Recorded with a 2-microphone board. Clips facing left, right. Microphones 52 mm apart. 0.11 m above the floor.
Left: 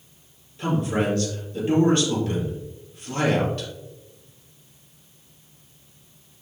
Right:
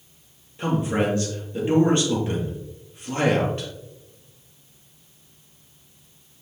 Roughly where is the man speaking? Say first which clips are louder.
Right 1 dB; right.